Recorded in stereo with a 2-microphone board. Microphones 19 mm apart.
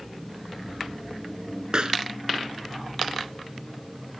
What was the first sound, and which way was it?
A pop, 50° right (ahead or behind).